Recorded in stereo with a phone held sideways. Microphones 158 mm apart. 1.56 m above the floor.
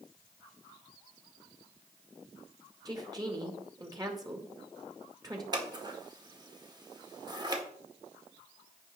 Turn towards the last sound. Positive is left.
turn(degrees=-25)  # may be behind; listen again after turning